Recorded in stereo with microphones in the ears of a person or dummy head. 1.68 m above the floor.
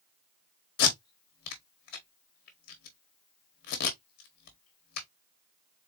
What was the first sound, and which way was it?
Tape being pulled, 50° left (ahead or behind).